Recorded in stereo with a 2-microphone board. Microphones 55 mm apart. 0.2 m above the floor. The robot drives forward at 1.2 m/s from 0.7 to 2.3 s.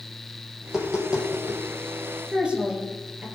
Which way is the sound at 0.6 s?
15° right (ahead or behind).